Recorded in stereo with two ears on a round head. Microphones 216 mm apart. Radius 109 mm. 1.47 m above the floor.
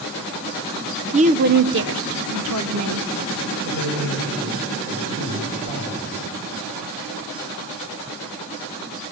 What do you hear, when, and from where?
1.1 s a woman speaking: 25° right (ahead or behind), 0.8 m; by 3.1 s 70° right (ahead or behind), 1.7 m
3.6 s a man speaking: 55° right (ahead or behind), 8.5 m